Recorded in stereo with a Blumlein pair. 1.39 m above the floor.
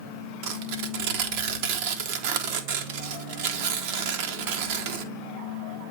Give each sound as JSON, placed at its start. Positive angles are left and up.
{"t": 0.4, "sound": "tearing paper", "azimuth_deg": -45, "distance_m": 1.0}